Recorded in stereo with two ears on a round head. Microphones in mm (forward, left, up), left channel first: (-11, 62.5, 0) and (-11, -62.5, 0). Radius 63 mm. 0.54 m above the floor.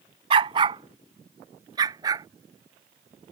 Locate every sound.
0.3 s a dog barking: 35° right (ahead or behind); by 2.3 s 25° right (ahead or behind)